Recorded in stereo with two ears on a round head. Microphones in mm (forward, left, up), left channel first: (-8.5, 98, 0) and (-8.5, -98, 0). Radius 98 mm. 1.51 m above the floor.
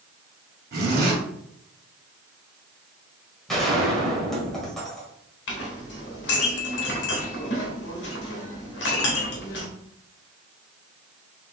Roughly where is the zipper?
Right.